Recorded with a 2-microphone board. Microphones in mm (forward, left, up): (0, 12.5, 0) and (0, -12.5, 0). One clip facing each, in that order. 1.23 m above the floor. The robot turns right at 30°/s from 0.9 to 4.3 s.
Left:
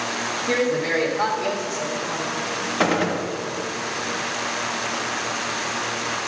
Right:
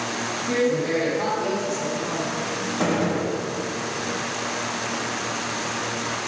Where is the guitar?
No guitar in this recording.